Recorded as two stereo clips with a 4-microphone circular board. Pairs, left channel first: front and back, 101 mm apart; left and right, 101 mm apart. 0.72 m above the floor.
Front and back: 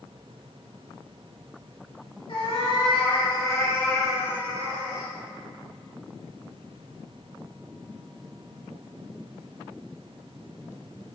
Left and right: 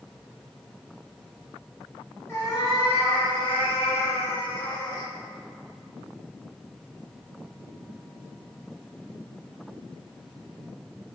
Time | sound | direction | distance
2.3 | a cat meowing | 30° left | 1.2 m